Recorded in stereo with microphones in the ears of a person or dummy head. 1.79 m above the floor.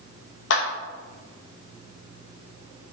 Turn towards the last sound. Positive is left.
turn(degrees=75)  # may be behind; listen again after turning